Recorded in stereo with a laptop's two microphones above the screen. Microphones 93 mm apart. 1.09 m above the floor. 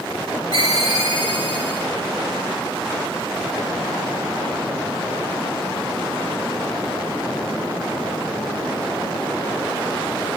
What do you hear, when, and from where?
0.5 s a ringtone: 70° right (ahead or behind), 2.5 m